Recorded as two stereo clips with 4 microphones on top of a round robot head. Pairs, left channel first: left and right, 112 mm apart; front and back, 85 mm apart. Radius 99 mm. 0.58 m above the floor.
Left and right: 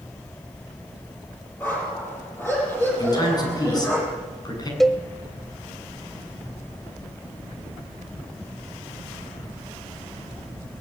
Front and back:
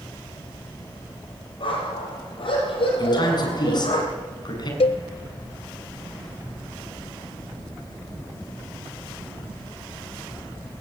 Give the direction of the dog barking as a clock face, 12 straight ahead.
11 o'clock.